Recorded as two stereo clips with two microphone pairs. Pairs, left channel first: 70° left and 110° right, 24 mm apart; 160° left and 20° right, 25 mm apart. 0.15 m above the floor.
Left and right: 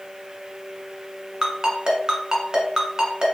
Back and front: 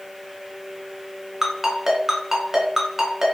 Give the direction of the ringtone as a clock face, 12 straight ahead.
3 o'clock.